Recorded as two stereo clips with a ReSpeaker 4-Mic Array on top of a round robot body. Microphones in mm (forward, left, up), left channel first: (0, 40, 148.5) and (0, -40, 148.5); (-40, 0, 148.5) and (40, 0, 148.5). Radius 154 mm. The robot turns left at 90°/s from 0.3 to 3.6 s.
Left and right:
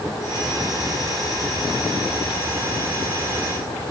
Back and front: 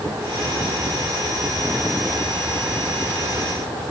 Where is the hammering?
No hammering in this recording.